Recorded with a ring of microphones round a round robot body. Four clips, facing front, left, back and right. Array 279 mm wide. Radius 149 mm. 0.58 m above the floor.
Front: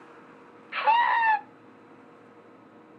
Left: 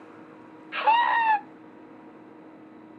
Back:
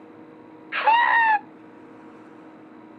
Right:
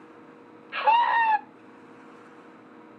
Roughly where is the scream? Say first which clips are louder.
Right 1 dB, back 4 dB; behind.